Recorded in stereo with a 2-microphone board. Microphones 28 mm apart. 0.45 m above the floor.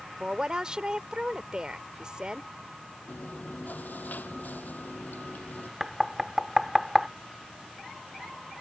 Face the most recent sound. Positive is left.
turn(degrees=-5)  # may be behind; listen again after turning